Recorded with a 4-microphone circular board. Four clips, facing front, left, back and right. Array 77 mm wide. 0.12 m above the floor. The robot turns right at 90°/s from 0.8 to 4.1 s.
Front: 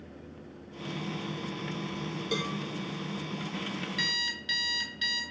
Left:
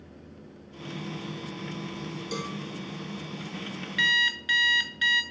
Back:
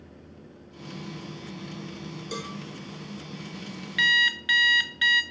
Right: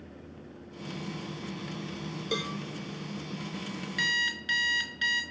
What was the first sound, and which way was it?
A cowbell, 65° right.